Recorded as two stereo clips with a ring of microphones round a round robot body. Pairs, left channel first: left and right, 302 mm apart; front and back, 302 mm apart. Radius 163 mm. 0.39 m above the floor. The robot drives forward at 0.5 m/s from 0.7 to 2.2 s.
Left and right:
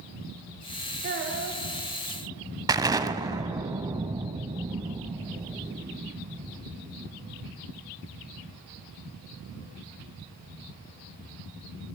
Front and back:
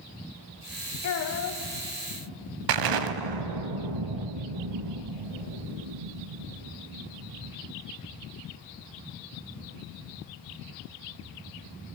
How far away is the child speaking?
About 2.5 m.